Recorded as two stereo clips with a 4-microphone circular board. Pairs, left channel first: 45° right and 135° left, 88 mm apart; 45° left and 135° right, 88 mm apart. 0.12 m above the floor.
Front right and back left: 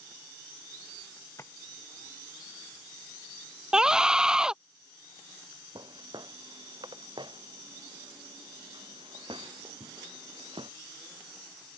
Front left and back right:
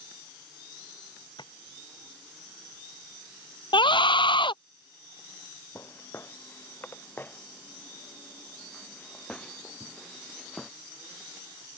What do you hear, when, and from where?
1.4 s tapping: 15° left
3.7 s a scream: 55° left
5.8 s footsteps: 105° left; by 10.7 s 130° left